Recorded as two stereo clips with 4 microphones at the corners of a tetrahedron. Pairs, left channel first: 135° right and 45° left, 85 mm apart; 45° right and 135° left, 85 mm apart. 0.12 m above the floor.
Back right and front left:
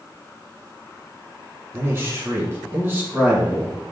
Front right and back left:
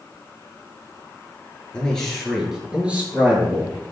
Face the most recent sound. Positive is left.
turn(degrees=105)